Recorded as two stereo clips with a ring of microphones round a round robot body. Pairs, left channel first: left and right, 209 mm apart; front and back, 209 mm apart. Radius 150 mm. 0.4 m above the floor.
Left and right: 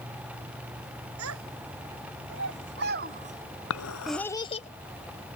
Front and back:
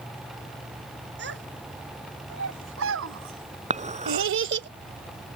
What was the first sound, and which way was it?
A child speaking, 125° right.